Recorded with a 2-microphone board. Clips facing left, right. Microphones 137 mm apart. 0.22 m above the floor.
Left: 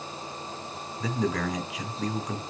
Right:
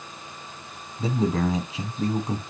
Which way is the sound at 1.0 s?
30° right (ahead or behind).